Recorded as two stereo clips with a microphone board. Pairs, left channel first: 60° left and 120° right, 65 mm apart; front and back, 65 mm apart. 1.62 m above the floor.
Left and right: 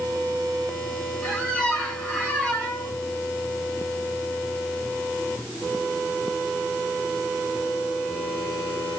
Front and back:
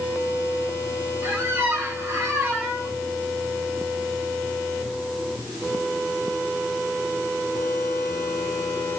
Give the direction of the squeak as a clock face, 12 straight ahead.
7 o'clock.